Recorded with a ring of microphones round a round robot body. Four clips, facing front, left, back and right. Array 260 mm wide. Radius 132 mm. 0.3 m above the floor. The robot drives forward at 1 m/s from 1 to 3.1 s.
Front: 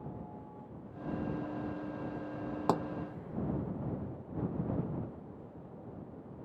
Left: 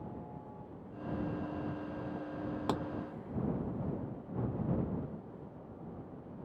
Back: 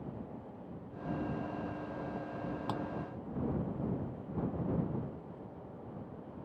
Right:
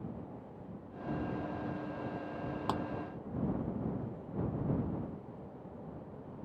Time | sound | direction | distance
2.7 | a pop | 15° left | ?